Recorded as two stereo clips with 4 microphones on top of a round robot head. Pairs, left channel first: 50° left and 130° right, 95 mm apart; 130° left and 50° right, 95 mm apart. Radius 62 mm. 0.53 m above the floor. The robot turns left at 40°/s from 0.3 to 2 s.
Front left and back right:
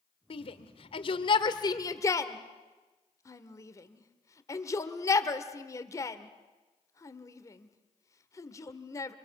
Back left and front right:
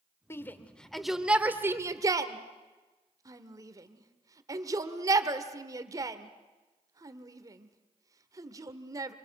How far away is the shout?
About 1.5 m.